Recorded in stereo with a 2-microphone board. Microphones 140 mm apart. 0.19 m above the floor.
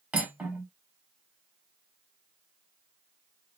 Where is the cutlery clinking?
10° right (ahead or behind), 0.8 m.